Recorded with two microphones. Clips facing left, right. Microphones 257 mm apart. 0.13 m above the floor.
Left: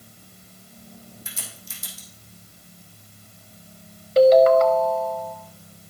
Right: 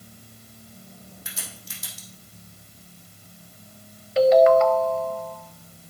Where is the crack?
70° right (ahead or behind), 3 m.